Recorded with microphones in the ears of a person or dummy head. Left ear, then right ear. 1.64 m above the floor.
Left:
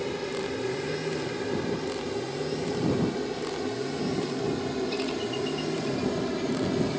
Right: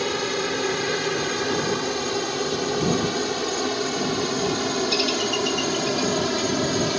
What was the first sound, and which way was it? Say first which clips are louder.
A helicopter: right 7 dB; 55° right (ahead or behind).